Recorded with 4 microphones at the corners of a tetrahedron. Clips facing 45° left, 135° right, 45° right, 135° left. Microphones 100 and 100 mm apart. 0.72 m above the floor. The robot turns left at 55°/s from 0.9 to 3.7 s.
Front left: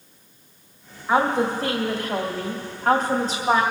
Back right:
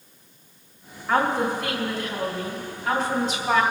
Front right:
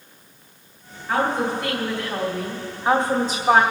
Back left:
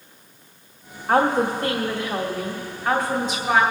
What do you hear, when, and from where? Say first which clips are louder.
1.1 s a woman speaking: front left 2 dB, back left 3 dB; 120° left, 2 m; by 3.6 s 15° right, 2 m